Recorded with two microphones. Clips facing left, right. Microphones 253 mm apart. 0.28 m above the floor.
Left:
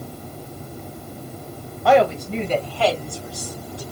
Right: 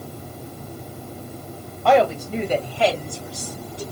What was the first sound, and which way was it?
A woman speaking, 5° left (ahead or behind).